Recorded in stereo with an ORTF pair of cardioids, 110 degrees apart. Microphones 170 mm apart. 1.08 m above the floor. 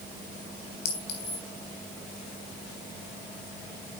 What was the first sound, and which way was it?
A clink, 65° left.